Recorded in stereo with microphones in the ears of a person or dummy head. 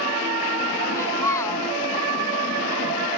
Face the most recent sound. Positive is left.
turn(degrees=15)  # may be behind; listen again after turning